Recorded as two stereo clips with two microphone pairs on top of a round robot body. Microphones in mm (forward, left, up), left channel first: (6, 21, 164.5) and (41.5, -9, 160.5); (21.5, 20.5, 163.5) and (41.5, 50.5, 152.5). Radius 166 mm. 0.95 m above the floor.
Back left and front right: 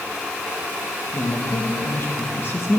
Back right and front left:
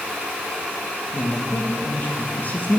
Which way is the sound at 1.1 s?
Straight behind.